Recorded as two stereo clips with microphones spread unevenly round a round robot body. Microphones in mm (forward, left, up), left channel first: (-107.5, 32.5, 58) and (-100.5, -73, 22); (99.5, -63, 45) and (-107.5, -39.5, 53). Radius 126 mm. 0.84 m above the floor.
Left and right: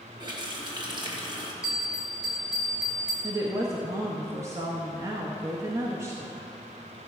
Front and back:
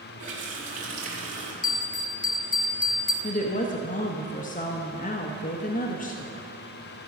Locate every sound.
0.2 s a running tap: 130° right, 2.5 m
1.6 s a bell: 30° right, 1.1 m
3.2 s a woman speaking: 45° right, 1.0 m